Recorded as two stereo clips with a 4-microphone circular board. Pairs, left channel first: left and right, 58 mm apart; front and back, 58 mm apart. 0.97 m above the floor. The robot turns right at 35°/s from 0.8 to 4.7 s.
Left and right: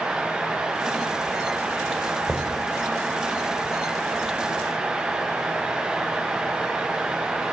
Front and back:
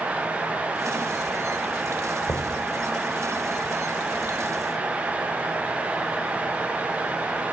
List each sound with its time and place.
2.3 s knocking: 20° left, 4 m; by 2.5 s 30° left, 4 m